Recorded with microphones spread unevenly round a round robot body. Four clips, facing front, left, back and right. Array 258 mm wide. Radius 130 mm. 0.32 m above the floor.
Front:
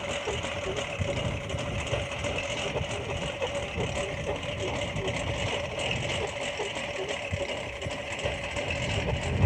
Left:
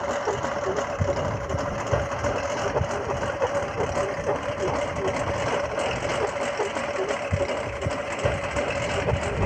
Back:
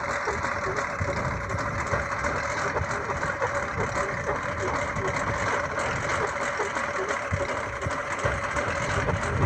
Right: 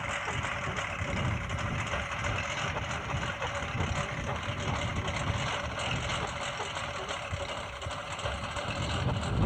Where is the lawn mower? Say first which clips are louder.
Left 10 dB, back 4 dB; 95° left; by 9.5 s 100° left.